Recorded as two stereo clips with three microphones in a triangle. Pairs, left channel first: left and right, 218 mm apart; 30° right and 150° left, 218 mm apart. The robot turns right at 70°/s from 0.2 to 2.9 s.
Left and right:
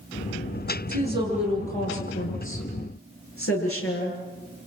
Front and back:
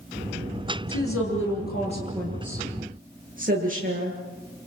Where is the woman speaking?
40° right, 9.5 m; by 4.2 s 100° left, 9.5 m.